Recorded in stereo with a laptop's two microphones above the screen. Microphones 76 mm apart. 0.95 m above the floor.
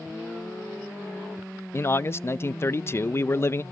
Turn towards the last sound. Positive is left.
turn(degrees=35)  # may be behind; listen again after turning